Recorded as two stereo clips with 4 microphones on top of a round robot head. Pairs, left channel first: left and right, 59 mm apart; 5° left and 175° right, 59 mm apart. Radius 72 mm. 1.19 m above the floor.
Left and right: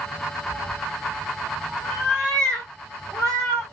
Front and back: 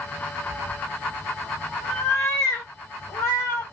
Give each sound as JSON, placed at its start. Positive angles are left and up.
{"t": 0.5, "sound": "a cat meowing", "azimuth_deg": -150, "distance_m": 1.0}